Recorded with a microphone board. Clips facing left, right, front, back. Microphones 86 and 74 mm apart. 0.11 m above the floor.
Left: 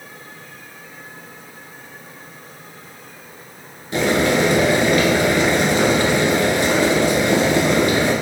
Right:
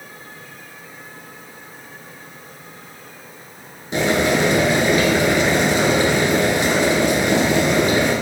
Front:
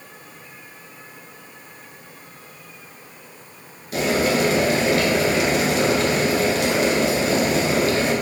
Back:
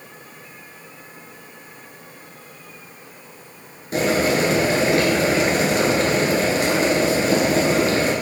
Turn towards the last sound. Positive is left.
turn(degrees=-150)